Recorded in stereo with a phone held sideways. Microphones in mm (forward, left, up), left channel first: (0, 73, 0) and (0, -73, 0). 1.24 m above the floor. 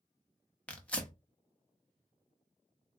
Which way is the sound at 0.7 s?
10° left (ahead or behind).